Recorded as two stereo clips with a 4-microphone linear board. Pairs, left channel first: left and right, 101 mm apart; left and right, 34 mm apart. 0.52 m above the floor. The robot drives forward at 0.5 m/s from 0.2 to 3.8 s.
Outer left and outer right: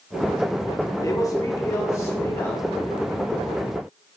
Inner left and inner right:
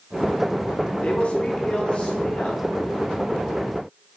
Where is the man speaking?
30° left (ahead or behind), 0.9 m; by 2.6 s 25° left (ahead or behind), 1.2 m.